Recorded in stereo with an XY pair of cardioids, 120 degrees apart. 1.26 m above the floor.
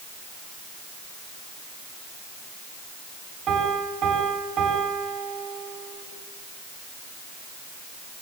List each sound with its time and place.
3.5 s a piano: 60° right, 9 m